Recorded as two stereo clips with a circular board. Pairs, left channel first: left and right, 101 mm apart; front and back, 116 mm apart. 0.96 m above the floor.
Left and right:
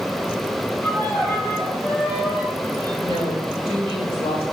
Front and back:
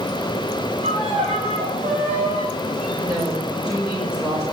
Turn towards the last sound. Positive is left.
turn(degrees=115)